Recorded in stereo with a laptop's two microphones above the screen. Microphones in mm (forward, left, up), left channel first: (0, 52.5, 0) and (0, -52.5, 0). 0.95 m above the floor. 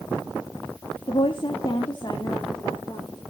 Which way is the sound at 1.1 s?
55° left (ahead or behind).